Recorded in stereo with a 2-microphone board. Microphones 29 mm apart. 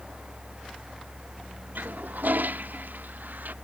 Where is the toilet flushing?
85° right.